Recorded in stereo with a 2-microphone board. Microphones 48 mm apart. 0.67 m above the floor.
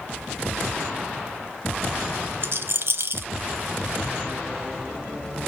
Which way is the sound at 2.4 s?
60° right (ahead or behind).